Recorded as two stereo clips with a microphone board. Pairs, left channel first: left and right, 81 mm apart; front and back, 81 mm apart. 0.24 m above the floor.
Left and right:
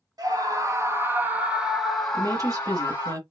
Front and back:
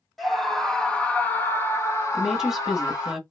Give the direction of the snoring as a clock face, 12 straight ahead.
I don't hear snoring.